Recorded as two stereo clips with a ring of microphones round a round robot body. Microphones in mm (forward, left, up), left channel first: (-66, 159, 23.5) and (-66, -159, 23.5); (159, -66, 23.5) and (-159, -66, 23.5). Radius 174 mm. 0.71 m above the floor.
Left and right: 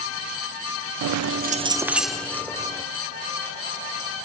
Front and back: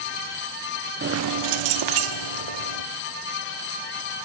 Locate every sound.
1.0 s keys jangling: 115° right, 0.5 m; by 2.8 s 170° left, 1.8 m